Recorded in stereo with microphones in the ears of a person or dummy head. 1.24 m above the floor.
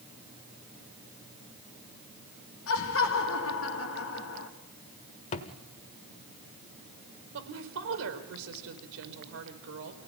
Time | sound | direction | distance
2.7 | laughter | 70° left (ahead or behind) | 2 m
5.3 | a thud | 35° left (ahead or behind) | 1.5 m
7.3 | a woman speaking | 80° right | 4.5 m